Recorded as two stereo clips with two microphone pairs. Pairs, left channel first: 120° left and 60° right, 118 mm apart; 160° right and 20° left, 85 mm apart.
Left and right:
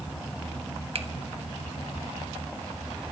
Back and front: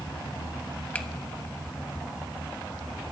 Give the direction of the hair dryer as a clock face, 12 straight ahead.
No hair dryer in this recording.